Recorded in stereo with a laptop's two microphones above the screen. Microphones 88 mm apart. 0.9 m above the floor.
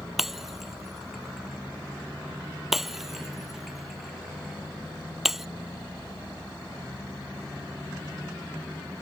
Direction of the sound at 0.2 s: 5° right (ahead or behind).